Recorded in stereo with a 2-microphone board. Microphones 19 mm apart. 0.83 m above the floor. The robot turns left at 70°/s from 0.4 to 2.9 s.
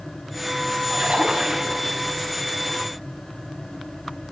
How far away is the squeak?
No squeak in this recording.